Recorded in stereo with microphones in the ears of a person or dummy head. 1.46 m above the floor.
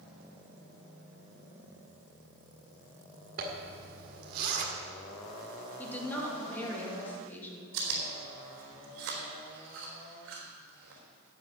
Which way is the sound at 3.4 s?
60° right (ahead or behind).